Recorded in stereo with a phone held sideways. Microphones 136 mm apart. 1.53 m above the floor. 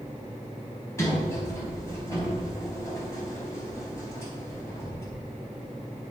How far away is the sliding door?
About 4.5 m.